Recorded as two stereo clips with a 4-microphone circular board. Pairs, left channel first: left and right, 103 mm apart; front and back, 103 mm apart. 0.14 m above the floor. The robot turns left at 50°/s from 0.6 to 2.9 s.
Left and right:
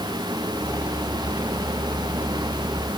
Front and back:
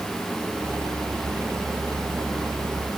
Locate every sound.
Only background noise.